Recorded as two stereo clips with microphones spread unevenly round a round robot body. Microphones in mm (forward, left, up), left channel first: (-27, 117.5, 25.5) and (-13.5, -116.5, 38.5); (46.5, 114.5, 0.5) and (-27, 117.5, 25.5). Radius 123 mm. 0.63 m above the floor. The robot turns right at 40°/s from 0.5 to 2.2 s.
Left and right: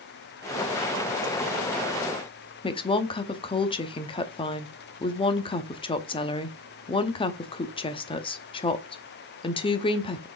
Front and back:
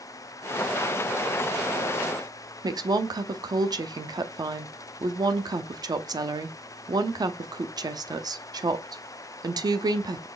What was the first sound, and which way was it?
A woman speaking, 150° left.